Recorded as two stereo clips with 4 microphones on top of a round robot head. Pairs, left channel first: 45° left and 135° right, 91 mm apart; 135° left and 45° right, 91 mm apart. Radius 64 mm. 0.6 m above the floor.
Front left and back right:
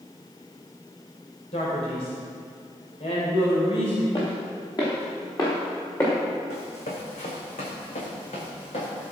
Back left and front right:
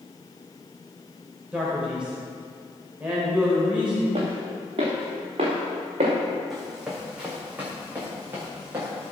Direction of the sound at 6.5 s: 45° left.